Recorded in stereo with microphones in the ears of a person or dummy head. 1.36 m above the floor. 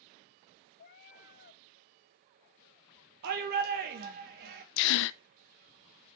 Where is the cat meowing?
25° left (ahead or behind), 0.7 m.